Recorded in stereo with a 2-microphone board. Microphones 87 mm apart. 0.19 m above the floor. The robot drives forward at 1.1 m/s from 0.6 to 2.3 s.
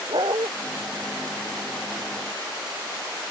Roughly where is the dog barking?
Right.